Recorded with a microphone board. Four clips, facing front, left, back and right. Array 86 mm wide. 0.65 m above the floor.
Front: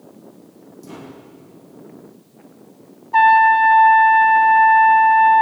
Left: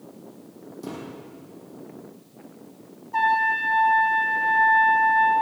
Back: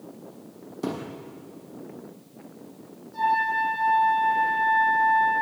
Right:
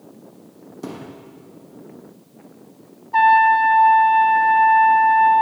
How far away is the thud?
About 6 m.